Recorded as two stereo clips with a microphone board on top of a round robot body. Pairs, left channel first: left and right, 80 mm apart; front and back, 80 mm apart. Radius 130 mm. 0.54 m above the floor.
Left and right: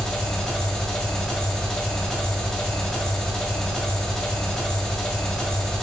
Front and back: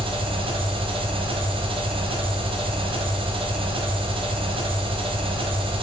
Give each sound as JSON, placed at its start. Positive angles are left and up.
{"t": 0.0, "sound": "an engine running", "azimuth_deg": 170, "distance_m": 1.4}